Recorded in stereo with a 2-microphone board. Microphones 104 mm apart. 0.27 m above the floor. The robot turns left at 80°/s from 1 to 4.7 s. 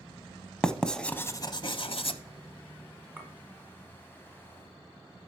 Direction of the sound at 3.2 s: 15° right (ahead or behind).